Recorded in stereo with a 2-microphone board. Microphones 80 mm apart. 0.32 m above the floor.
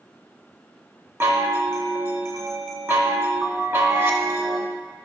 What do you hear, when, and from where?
1.2 s a chime: 30° right (ahead or behind), 0.9 m